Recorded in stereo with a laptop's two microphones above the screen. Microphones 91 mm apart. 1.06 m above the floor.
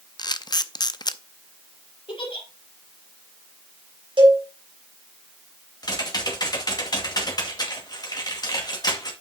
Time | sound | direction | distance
0.2 | a camera shutter | 50° left (ahead or behind) | 0.6 m
2.1 | a giggle | 75° left (ahead or behind) | 3 m
4.2 | a cowbell | 70° right (ahead or behind) | 4.5 m
5.8 | typing on a keyboard | 50° left (ahead or behind) | 2 m